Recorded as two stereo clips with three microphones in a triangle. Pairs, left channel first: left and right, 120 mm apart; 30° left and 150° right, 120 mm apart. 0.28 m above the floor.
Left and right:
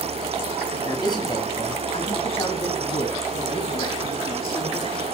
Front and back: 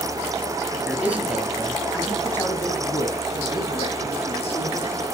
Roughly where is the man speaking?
Behind left.